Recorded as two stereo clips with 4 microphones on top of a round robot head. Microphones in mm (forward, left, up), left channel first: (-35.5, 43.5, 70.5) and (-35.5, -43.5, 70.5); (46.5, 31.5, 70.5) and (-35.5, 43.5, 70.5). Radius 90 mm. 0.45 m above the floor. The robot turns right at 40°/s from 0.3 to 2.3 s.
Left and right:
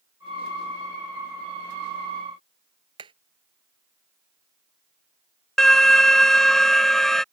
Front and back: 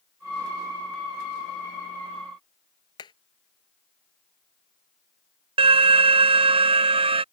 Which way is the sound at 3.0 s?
50° right.